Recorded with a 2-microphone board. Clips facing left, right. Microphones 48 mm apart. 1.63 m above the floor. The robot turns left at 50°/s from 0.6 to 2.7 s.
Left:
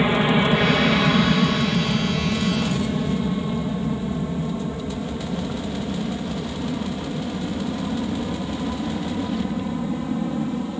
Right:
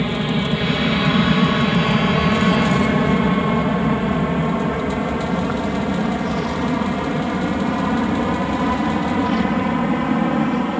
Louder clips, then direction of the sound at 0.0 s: Left 2 dB; 20° left (ahead or behind).